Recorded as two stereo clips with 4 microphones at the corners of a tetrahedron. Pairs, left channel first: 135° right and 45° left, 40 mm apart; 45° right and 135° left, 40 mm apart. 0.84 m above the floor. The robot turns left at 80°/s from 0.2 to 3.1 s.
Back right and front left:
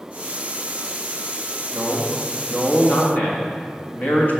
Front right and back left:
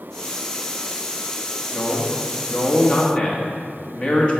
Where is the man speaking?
10° left, 1.6 m; by 4.4 s 100° right, 1.6 m.